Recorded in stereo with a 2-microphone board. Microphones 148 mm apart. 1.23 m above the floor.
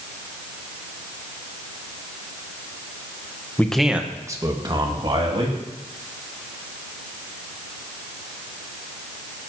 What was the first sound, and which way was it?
A man speaking, 15° left (ahead or behind).